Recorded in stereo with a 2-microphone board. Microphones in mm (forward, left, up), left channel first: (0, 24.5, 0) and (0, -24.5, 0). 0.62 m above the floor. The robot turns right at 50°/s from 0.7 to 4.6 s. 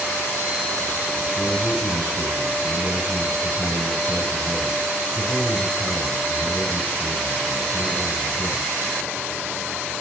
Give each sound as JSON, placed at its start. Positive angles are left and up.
{"t": 1.4, "sound": "a man speaking", "azimuth_deg": -170, "distance_m": 4.5}